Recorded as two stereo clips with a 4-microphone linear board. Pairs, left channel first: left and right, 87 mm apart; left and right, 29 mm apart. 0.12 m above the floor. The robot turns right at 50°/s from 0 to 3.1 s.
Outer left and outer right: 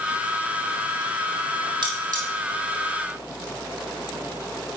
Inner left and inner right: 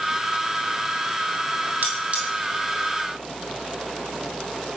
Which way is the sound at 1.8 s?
60° right (ahead or behind).